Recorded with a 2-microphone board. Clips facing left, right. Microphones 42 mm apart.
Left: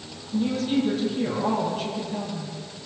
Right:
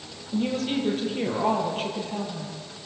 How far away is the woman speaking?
About 8 m.